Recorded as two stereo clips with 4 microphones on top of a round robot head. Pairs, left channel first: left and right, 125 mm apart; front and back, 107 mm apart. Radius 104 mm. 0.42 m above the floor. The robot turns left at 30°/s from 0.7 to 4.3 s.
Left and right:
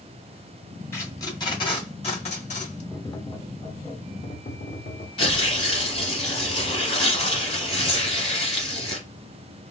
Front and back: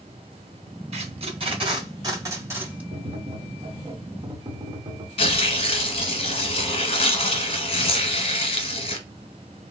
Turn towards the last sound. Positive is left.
turn(degrees=30)